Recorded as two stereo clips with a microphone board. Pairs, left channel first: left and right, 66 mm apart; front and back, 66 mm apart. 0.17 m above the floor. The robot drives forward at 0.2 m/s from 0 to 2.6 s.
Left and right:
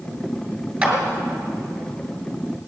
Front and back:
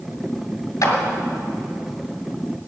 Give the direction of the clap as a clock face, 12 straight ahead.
1 o'clock.